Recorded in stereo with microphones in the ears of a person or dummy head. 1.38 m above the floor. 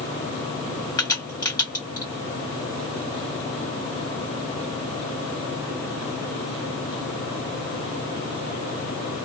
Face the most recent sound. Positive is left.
turn(degrees=20)  # may be behind; listen again after turning